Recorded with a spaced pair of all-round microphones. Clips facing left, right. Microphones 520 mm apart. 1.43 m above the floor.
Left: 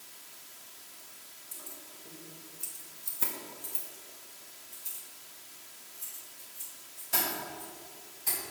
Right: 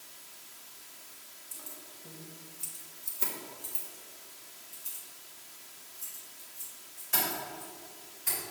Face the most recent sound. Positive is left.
turn(degrees=60)  # may be behind; listen again after turning